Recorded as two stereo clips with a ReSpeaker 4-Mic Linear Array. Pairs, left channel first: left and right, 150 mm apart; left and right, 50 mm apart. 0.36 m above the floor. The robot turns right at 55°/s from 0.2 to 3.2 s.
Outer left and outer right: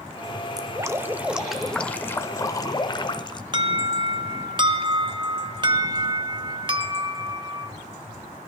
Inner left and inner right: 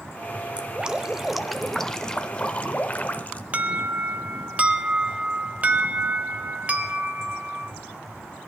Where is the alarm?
30° right (ahead or behind), 0.9 m.